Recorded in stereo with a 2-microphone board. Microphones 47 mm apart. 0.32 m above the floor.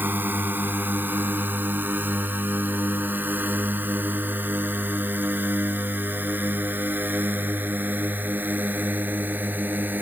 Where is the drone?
45° right (ahead or behind).